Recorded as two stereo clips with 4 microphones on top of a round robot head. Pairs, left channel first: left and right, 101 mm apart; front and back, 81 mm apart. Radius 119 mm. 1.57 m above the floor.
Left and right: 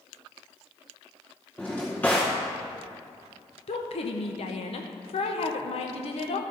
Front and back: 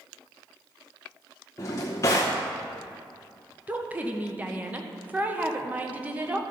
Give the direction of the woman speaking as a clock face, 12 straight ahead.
8 o'clock.